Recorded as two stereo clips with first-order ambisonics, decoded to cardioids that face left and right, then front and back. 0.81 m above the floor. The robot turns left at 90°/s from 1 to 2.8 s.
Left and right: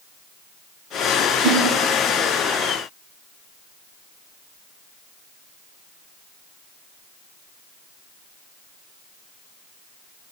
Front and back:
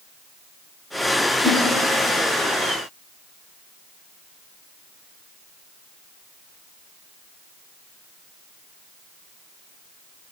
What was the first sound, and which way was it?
A splash, 60° right.